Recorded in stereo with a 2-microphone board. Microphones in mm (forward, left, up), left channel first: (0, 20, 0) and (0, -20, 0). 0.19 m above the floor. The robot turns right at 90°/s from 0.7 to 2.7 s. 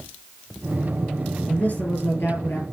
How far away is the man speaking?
About 4 m.